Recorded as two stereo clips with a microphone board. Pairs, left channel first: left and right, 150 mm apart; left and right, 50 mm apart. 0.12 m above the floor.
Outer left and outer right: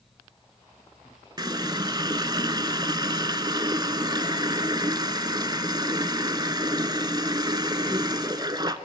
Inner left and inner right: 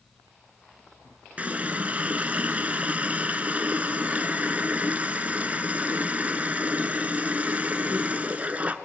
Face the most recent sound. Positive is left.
turn(degrees=-30)  # may be behind; listen again after turning